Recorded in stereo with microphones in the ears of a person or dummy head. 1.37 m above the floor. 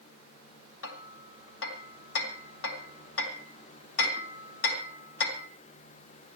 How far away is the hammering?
About 2.5 m.